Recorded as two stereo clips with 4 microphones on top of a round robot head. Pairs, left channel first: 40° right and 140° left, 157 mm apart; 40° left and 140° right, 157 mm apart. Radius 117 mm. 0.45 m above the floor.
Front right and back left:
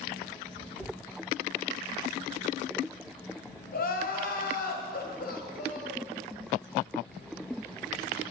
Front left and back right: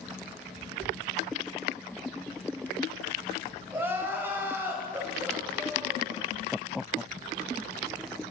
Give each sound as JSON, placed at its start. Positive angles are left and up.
{"t": 3.7, "sound": "crying", "azimuth_deg": -60, "distance_m": 2.5}